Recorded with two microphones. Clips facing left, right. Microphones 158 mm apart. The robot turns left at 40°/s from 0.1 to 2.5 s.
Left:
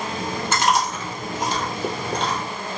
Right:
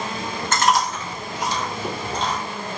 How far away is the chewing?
About 1.1 m.